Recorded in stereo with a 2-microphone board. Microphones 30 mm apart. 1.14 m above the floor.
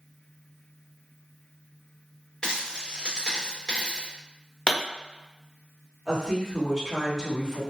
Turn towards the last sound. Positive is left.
turn(degrees=10)  # may be behind; listen again after turning